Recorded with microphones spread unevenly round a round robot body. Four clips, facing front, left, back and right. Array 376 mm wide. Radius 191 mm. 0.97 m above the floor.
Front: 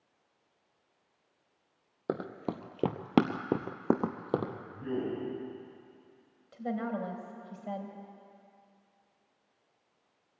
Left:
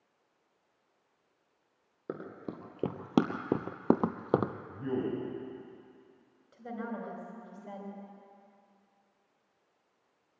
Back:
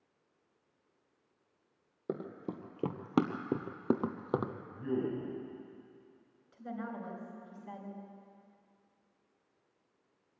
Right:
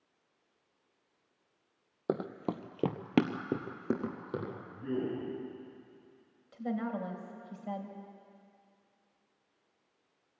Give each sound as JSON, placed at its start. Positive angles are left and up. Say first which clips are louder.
{"t": 2.1, "sound": "running footsteps", "louder": "right 6 dB, front 4 dB", "azimuth_deg": -55, "distance_m": 1.5}
{"t": 4.7, "sound": "a man speaking", "louder": "right 2 dB, back 1 dB", "azimuth_deg": 65, "distance_m": 8.0}
{"t": 6.5, "sound": "a woman speaking", "louder": "right 4 dB, front 7 dB", "azimuth_deg": -25, "distance_m": 4.5}